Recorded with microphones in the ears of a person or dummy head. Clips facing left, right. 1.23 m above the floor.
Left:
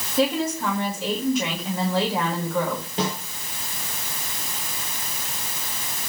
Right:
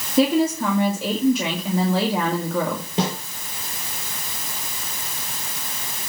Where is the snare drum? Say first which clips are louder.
Right 3 dB; 70° right (ahead or behind), 4.5 m.